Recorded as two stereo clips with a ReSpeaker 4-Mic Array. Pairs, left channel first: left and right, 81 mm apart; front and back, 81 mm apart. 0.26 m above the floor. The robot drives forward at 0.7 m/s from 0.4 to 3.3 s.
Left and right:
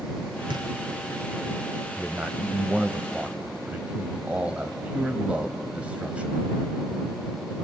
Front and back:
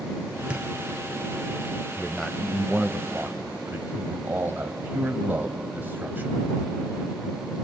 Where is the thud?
105° right, 2 m.